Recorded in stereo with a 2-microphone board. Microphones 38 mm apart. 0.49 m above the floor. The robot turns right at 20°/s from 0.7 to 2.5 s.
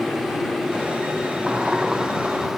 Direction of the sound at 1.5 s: 30° right (ahead or behind).